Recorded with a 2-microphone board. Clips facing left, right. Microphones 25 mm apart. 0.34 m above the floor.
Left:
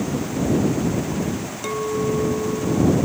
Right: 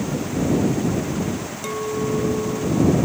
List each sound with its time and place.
1.6 s a clink: 5° left (ahead or behind)